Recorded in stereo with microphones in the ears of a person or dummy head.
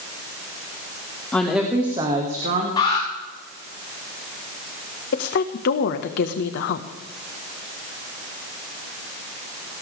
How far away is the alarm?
About 4.5 m.